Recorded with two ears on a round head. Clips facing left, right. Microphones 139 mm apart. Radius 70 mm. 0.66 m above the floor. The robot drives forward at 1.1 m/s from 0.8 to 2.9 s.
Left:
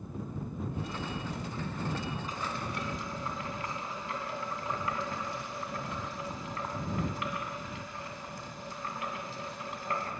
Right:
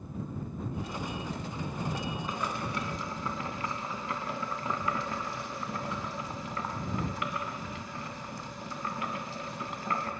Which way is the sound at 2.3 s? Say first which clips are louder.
Right 3 dB; 45° right (ahead or behind).